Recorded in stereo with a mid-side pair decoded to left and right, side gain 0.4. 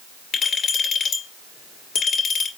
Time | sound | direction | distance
0.3 | a clink | 70° left | 2 m